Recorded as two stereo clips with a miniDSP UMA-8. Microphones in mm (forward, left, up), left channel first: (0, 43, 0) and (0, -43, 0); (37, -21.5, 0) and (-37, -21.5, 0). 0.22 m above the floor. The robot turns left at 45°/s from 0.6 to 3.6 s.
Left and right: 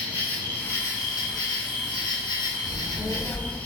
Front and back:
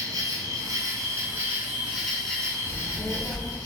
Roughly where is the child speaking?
Left.